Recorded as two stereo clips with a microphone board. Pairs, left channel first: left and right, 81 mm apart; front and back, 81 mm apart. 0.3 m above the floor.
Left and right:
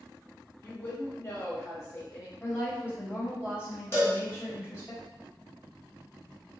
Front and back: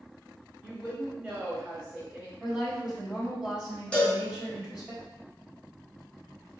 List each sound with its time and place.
0.6 s a woman speaking: 105° left, 1.1 m
2.4 s a woman speaking: 110° left, 1.4 m
3.9 s a cowbell: 70° left, 1.2 m